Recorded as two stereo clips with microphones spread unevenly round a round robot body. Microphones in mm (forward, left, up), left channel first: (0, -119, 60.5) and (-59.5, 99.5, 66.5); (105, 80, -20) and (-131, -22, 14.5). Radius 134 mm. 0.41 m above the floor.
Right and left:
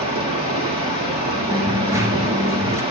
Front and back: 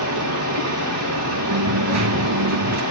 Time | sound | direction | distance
0.0 | running water | 170° left | 5 m
1.5 | a dropped coin | 175° right | 1.5 m